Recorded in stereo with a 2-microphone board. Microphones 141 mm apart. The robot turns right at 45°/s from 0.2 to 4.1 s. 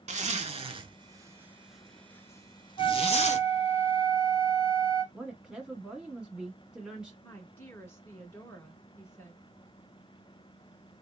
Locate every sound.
0.1 s a zipper: 55° right (ahead or behind), 0.5 m; by 3.5 s 55° left (ahead or behind), 0.5 m
2.8 s a flute: 65° left, 0.9 m; by 5.0 s 125° left, 0.9 m
5.1 s a woman speaking: 5° right (ahead or behind), 1.0 m
7.2 s a woman speaking: 15° left (ahead or behind), 1.3 m